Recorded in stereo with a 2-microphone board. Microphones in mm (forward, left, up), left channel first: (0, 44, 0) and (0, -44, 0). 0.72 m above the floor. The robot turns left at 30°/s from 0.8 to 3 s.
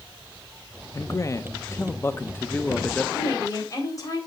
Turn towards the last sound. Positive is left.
turn(degrees=40)  # may be behind; listen again after turning